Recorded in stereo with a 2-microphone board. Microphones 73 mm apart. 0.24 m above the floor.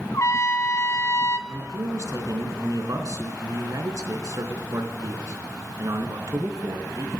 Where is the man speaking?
50° right (ahead or behind), 3 m.